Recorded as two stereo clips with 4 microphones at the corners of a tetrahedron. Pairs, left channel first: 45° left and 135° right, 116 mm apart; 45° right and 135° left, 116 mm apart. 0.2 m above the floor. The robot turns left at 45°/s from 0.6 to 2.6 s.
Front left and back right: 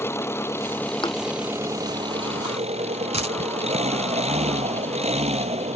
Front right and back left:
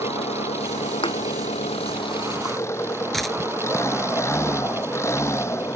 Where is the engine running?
20° right; by 5.8 s 110° right.